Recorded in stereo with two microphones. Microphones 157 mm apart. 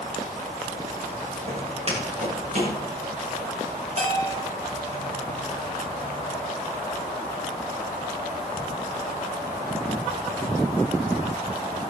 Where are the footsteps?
40° right (ahead or behind), 8 m; by 2.8 s 50° right (ahead or behind), 7.5 m.